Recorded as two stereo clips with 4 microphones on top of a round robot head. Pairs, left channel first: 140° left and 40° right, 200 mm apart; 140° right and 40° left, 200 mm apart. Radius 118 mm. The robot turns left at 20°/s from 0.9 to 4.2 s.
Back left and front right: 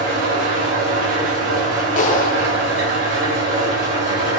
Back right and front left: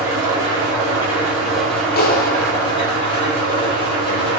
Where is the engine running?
35° right, 2 m; by 4.4 s 100° right, 2 m.